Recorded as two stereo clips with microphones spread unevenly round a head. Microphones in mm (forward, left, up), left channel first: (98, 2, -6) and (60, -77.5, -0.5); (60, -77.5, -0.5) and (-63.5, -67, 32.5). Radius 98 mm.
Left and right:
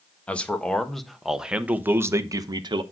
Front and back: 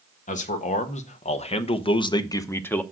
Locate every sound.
0.3 s a man speaking: 10° right, 1.6 m; by 2.8 s 80° right, 1.0 m